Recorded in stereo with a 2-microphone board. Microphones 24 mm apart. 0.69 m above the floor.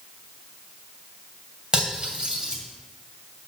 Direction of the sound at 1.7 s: 35° right (ahead or behind).